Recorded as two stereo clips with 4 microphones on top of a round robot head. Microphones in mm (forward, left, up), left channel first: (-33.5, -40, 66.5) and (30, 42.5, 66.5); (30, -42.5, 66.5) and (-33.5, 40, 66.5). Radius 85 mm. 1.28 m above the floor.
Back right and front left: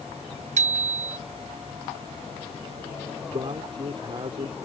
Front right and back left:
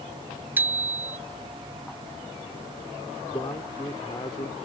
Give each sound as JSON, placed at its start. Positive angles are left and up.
{"t": 0.6, "sound": "a bicycle bell", "azimuth_deg": 55}
{"t": 3.3, "sound": "a man speaking", "azimuth_deg": 5}